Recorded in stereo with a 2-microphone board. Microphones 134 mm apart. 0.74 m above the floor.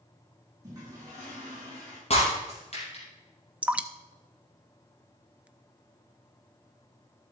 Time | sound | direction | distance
0.6 | a toilet flushing | 25° right (ahead or behind) | 5.5 m
2.1 | breaking glass | 50° left (ahead or behind) | 5 m
3.6 | dripping | 10° right (ahead or behind) | 0.5 m